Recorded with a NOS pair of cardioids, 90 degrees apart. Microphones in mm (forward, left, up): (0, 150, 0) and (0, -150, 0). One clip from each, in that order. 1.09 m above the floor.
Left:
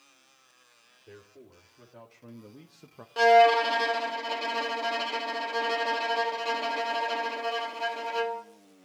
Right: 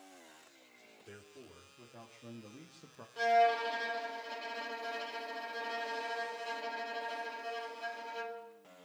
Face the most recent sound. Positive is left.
turn(degrees=60)